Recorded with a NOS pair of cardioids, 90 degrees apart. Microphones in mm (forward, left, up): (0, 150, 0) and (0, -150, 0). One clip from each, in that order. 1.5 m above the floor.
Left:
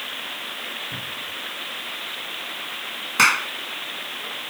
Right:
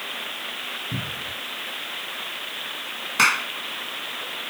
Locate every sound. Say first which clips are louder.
0.9 s a cupboard door: even; 70° right
3.2 s a clap: left 2 dB; 15° left